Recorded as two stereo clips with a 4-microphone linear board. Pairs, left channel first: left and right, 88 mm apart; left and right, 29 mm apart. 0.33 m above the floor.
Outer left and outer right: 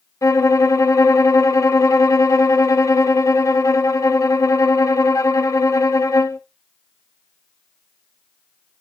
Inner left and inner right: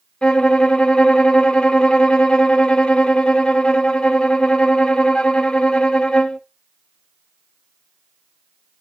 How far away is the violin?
About 0.5 m.